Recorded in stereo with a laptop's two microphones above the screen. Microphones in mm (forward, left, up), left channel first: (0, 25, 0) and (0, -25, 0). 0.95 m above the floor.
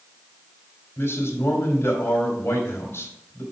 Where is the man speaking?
50° left (ahead or behind), 2.5 m.